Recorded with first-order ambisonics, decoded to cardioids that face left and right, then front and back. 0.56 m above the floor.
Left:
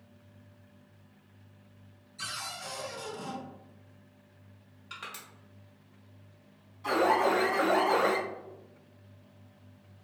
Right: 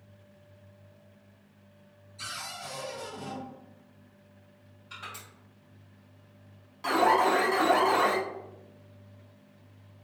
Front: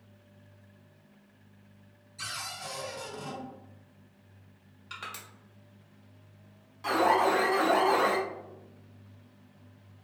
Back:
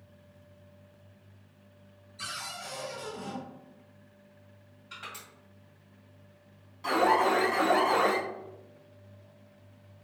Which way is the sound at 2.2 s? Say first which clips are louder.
Even, even; 15° left.